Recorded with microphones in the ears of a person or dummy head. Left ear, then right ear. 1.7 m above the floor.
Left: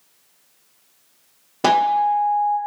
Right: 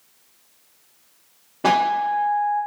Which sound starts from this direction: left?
A guitar, at 1.6 s.